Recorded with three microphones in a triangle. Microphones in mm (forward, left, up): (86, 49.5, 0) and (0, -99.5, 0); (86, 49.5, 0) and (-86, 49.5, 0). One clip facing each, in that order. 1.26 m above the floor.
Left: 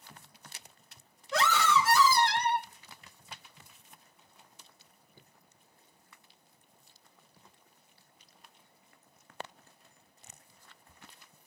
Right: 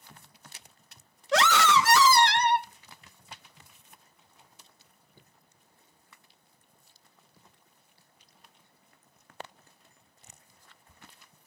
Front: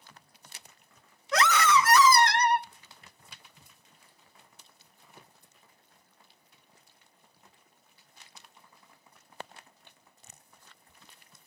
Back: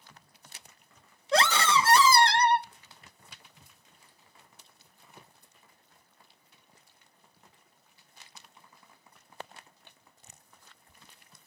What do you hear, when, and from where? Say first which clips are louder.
1.3 s a scream: right 4 dB, front 1 dB; 120° right, 0.8 m